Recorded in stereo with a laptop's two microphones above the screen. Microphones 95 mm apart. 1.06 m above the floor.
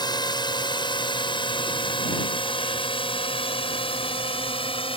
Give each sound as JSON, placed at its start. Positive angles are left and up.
{"t": 0.0, "sound": "a drone", "side_deg": 50}